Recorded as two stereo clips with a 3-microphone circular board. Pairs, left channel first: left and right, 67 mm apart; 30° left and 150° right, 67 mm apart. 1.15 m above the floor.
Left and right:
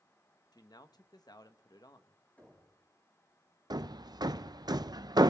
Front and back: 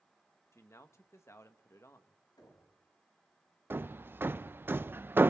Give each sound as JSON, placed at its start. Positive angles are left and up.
{"t": 0.5, "sound": "a man speaking", "azimuth_deg": 80, "distance_m": 1.2}
{"t": 2.4, "sound": "knocking", "azimuth_deg": 25, "distance_m": 7.5}
{"t": 3.7, "sound": "hammering", "azimuth_deg": -90, "distance_m": 0.6}